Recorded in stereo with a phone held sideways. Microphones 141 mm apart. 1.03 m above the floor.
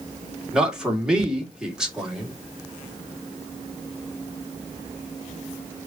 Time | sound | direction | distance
0.5 | a man speaking | 5° right (ahead or behind) | 2.0 m